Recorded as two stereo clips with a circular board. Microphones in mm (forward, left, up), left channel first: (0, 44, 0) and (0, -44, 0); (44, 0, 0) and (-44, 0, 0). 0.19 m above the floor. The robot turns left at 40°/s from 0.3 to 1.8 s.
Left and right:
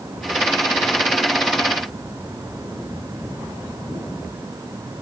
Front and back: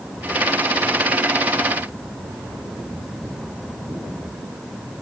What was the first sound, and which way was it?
Only background noise.